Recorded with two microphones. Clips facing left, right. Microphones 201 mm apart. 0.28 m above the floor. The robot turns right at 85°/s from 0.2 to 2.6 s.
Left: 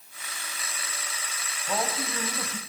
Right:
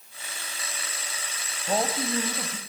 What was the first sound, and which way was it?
A man speaking, 80° right.